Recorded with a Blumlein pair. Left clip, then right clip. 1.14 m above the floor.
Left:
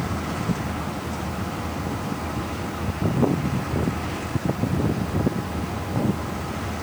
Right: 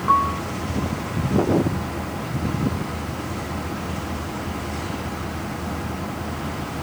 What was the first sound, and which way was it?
A piano, 45° right.